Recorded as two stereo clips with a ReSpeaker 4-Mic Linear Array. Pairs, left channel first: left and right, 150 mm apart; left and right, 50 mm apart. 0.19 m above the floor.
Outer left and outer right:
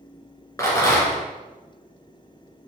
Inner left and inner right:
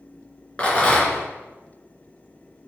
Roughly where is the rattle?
Left.